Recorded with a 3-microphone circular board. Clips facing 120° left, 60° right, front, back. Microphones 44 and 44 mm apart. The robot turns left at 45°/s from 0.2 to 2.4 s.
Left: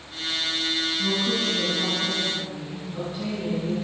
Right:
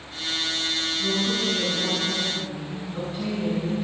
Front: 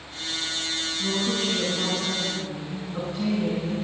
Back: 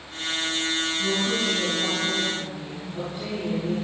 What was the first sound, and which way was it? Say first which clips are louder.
A woman speaking: right 1 dB, front 1 dB; 95° left.